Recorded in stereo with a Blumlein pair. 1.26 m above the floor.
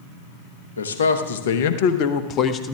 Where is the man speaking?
70° left, 1.3 m; by 2.8 s 15° left, 0.9 m.